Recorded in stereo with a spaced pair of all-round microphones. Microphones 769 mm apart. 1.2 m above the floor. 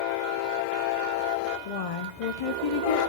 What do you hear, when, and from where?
1.6 s a woman speaking: 55° left (ahead or behind), 0.5 m